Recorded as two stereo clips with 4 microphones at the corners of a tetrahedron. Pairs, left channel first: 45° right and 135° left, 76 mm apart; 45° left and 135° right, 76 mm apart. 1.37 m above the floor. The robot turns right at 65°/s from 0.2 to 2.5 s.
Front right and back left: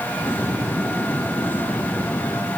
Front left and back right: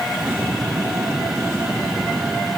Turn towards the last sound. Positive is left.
No sound to turn to.